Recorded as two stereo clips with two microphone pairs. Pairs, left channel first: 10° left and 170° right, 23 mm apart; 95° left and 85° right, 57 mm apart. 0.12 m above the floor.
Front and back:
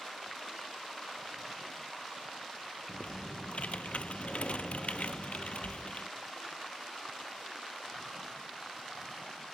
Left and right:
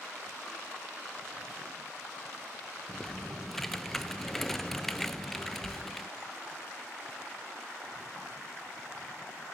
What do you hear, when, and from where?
2.9 s typing on a keyboard: 5° left, 0.5 m